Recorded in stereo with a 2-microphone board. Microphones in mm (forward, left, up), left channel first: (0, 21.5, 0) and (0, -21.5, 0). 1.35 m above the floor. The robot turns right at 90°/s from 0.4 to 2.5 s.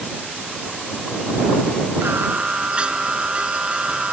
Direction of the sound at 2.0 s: 70° right.